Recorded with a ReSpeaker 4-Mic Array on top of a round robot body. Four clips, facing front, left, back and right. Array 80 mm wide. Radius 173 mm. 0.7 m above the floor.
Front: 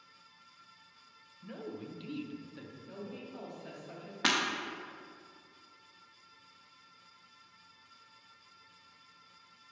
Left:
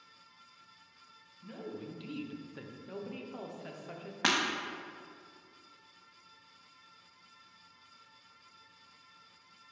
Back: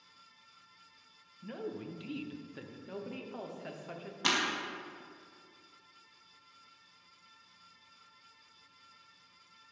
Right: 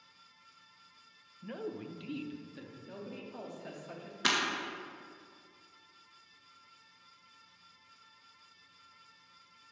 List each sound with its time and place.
1.4 s a man speaking: 115° right, 0.9 m; by 2.8 s 130° left, 0.9 m
2.9 s a woman speaking: 160° left, 1.2 m
4.2 s breaking glass: 65° left, 0.8 m